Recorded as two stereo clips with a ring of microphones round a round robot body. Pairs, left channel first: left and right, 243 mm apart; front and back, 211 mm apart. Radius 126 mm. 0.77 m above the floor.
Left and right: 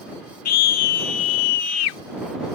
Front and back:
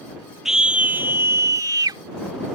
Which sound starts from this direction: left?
A scream, at 0.5 s.